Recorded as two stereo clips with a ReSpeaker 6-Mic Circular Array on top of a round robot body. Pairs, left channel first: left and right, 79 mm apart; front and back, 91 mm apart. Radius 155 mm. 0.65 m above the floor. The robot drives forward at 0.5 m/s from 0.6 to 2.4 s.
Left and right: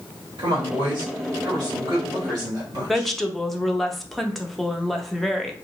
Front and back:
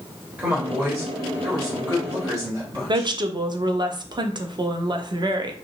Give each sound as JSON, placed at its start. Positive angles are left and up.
{"t": 0.4, "sound": "a woman speaking", "azimuth_deg": -105, "distance_m": 1.5}
{"t": 2.9, "sound": "a woman speaking", "azimuth_deg": 180, "distance_m": 0.6}